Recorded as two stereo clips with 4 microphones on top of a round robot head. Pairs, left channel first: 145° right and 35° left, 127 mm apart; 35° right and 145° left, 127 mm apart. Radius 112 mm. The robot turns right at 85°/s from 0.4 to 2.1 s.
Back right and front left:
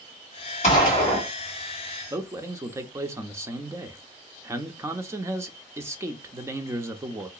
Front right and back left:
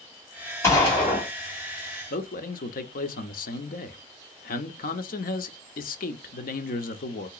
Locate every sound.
0.6 s a gunshot: 105° right, 2 m; by 1.3 s 50° right, 2 m
2.1 s a man speaking: 35° right, 0.6 m